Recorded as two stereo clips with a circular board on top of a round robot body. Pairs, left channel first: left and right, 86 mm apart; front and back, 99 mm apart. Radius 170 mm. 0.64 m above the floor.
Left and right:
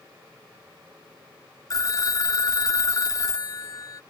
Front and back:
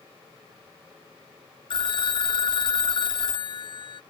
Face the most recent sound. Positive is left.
turn(degrees=40)